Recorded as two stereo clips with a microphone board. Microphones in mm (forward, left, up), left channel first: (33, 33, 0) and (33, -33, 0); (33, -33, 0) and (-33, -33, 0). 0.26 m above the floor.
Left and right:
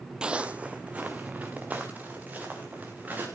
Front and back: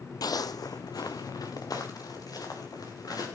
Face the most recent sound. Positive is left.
turn(degrees=-25)